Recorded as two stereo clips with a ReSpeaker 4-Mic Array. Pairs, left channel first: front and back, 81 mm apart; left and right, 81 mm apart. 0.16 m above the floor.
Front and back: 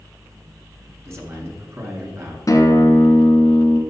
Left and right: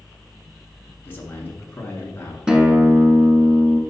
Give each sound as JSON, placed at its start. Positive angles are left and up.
{"t": 1.1, "sound": "a man speaking", "azimuth_deg": 140, "distance_m": 2.0}
{"t": 2.5, "sound": "a guitar", "azimuth_deg": -15, "distance_m": 1.2}